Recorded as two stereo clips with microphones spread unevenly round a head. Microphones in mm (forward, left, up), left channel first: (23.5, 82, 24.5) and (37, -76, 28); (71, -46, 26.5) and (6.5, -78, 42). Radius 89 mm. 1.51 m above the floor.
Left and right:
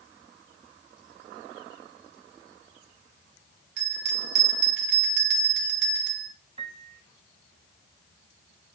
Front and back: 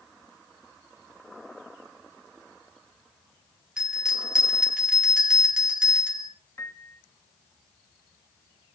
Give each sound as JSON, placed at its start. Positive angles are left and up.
{"t": 3.8, "sound": "a bell", "azimuth_deg": -75, "distance_m": 3.5}
{"t": 6.6, "sound": "a piano", "azimuth_deg": -30, "distance_m": 1.7}